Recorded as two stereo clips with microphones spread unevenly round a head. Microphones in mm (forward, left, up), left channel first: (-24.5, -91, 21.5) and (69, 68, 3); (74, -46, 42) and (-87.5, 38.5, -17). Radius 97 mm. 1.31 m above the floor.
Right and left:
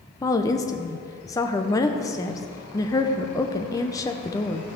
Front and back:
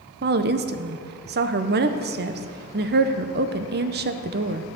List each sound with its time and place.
0.2 s a woman speaking: 165° left, 0.7 m